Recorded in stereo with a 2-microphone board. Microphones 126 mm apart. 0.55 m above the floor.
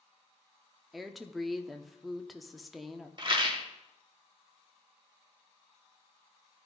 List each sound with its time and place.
0.9 s a woman speaking: centre (ahead or behind), 0.7 m
3.2 s a rattle: 40° right (ahead or behind), 1.3 m